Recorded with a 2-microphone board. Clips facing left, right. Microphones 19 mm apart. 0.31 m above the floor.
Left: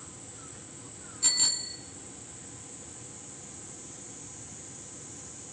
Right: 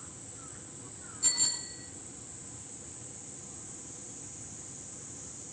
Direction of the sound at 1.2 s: 20° left (ahead or behind).